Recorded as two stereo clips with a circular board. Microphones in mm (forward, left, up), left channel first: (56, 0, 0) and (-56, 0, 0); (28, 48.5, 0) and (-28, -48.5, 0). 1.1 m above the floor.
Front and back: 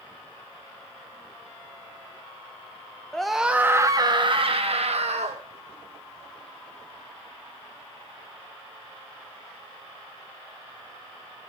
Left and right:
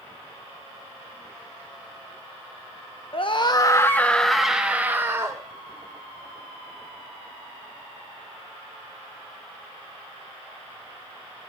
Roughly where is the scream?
Left.